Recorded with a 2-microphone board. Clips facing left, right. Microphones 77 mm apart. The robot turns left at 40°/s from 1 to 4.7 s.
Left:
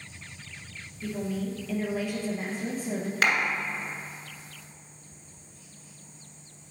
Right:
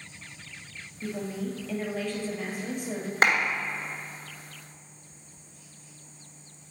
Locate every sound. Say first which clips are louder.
1.0 s a woman speaking: left 1 dB; 150° right, 2.5 m; by 3.1 s 130° left, 2.5 m
3.2 s a clap: right 3 dB; 30° right (ahead or behind), 1.5 m; by 3.4 s 35° right (ahead or behind), 1.5 m